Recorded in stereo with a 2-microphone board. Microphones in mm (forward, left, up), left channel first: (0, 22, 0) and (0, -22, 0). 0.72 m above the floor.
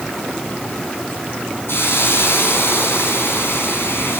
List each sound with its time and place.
1.7 s a hiss: 55° left (ahead or behind), 6.5 m